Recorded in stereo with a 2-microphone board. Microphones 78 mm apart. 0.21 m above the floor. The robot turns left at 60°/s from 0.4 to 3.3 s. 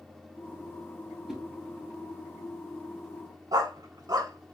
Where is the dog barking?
60° right (ahead or behind), 0.5 m.